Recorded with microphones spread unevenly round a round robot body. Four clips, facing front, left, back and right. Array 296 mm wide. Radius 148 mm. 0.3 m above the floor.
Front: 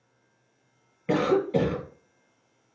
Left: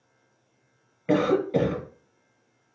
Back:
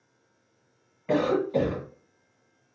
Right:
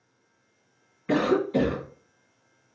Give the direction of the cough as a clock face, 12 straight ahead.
11 o'clock.